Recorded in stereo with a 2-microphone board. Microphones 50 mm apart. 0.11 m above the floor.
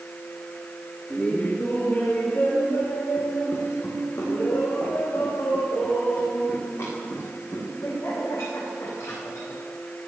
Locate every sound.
1.1 s laughter: 15° left (ahead or behind), 2 m; by 9.6 s 70° left (ahead or behind), 9.5 m